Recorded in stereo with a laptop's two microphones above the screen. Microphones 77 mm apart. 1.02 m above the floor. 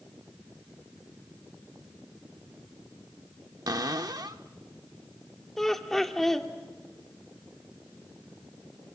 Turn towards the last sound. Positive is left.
turn(degrees=5)  # may be behind; listen again after turning